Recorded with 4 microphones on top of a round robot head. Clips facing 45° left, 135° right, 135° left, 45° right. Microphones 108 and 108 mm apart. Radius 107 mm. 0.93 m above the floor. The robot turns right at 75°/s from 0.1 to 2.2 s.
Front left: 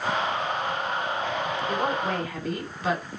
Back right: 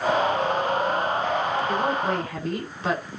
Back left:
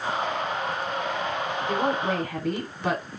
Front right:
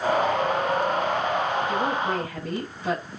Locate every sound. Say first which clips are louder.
1.7 s a woman speaking: back right 2 dB, even; 120° left, 5.5 m; by 3.0 s 160° left, 5.5 m